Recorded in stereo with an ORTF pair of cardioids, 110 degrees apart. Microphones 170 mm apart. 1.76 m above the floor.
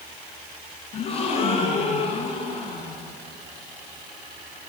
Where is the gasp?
35° left, 7 m.